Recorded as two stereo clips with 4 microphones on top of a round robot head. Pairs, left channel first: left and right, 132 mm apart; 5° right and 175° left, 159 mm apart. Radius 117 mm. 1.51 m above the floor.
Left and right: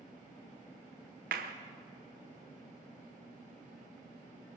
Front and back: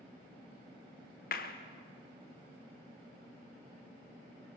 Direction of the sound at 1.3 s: 50° right.